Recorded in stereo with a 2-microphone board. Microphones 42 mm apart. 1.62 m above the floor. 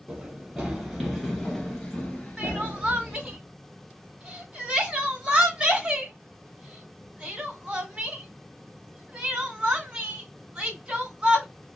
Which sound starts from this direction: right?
Crying, at 2.4 s.